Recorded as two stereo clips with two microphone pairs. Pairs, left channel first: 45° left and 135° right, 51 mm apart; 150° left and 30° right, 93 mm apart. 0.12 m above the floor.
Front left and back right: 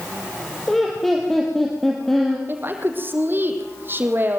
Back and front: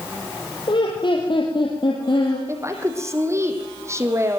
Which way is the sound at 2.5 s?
90° right.